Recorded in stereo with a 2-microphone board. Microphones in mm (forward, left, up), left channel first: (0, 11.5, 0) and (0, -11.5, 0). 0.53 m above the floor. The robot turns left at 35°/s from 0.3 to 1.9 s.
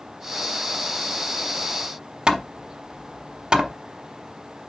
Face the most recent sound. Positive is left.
turn(degrees=-30)  # may be behind; listen again after turning